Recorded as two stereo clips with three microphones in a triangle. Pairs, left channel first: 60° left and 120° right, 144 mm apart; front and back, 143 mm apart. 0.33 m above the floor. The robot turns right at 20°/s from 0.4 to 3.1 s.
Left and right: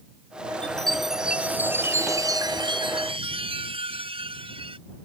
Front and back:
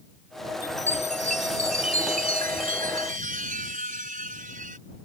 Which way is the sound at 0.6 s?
145° left.